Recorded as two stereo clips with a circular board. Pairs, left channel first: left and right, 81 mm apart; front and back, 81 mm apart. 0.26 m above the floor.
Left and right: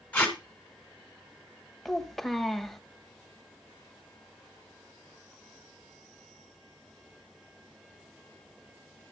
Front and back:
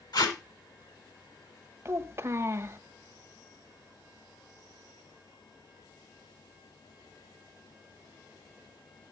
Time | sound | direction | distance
0.1 | tape being pulled | 20° left | 2.5 m
1.9 | a child speaking | 175° left | 0.8 m